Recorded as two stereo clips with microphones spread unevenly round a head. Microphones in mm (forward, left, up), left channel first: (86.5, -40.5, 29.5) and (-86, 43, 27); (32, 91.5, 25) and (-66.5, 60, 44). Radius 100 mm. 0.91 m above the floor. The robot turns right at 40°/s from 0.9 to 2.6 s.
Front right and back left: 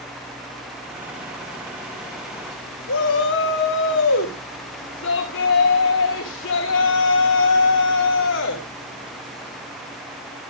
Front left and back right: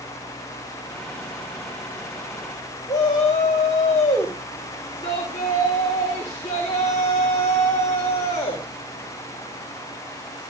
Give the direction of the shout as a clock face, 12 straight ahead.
2 o'clock.